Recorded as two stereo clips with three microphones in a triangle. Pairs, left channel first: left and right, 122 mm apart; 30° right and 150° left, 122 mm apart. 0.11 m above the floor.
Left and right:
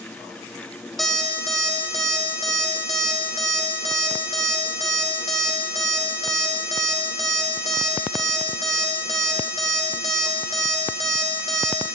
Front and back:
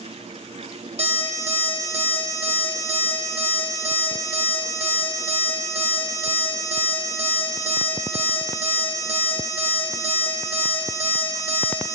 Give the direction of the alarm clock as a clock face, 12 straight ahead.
6 o'clock.